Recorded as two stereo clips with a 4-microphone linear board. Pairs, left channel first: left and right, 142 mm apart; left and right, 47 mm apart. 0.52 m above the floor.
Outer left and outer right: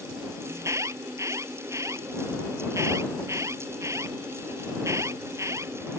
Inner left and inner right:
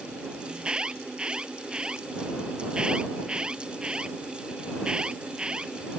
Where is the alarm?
20° right (ahead or behind).